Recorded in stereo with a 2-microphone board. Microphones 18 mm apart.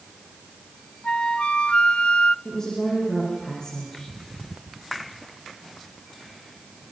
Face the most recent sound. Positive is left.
turn(degrees=35)  # may be behind; listen again after turning